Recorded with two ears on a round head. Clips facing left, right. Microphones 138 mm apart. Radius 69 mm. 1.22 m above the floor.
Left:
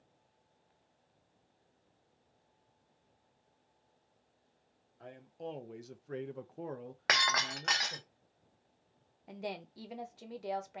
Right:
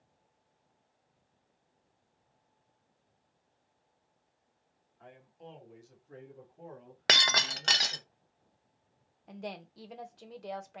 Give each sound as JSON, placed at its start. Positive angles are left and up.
{"t": 5.0, "sound": "a man speaking", "side_deg": 45, "distance_m": 1.0}
{"t": 7.1, "sound": "breaking glass", "side_deg": -40, "distance_m": 0.5}
{"t": 9.3, "sound": "a woman speaking", "side_deg": 5, "distance_m": 0.8}